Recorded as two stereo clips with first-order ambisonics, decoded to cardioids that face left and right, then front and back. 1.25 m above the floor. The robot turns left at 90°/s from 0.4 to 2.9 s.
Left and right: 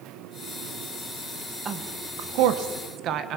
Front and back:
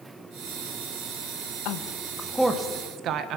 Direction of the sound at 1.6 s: 25° right.